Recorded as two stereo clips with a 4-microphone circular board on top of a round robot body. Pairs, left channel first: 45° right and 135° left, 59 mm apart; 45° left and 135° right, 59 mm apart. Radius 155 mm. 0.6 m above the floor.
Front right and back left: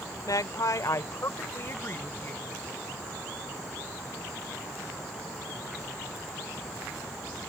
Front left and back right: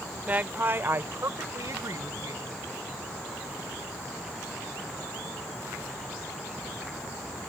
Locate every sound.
0.3 s a woman speaking: 70° right; by 2.5 s 105° right